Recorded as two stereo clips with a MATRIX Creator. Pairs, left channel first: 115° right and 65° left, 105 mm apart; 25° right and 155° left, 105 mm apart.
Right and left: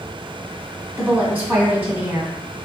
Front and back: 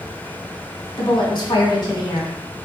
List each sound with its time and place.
1.0 s a woman speaking: 5° left, 1.8 m